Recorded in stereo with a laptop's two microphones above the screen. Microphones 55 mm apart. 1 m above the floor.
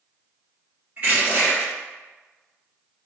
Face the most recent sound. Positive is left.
turn(degrees=-30)  # may be behind; listen again after turning